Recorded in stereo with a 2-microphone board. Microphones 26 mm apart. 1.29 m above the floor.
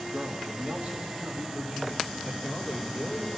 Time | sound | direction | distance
0.1 | a man speaking | 55° right (ahead or behind) | 2 m